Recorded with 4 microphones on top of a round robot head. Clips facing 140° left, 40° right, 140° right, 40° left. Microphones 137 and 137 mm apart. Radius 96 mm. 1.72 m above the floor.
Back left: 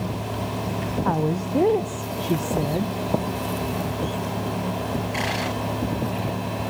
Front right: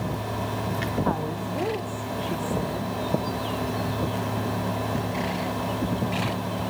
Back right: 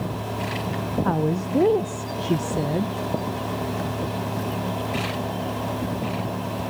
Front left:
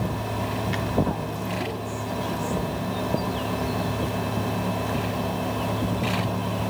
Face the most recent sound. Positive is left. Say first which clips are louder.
# back left 4 dB, back right 5 dB
turn(degrees=-170)